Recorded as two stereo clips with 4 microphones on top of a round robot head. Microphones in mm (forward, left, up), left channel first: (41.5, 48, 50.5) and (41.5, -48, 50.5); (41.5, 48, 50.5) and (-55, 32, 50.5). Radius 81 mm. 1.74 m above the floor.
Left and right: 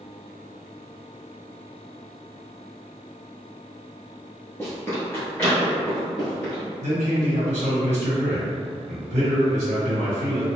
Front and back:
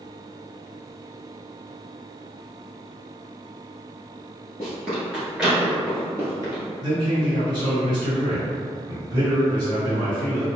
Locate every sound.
4.6 s running footsteps: 50° left, 1.7 m; by 6.6 s 165° left, 1.9 m
6.8 s a man speaking: 110° right, 1.4 m